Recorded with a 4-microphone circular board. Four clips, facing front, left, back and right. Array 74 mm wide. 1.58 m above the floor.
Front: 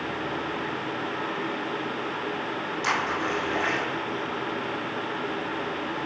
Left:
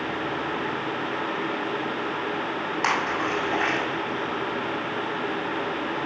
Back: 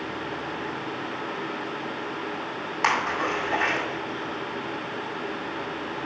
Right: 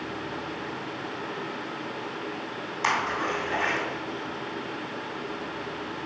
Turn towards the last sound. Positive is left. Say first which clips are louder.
# even, back 3 dB
turn(degrees=140)